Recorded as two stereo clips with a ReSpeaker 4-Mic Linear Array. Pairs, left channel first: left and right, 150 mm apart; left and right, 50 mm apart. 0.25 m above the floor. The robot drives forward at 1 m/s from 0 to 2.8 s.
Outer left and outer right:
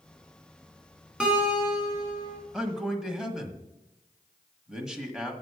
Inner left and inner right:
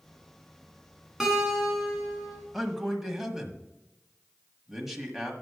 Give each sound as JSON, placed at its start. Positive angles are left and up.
{"t": 1.2, "sound": "a guitar", "side_deg": -5, "distance_m": 2.5}
{"t": 2.5, "sound": "a man speaking", "side_deg": -5, "distance_m": 1.3}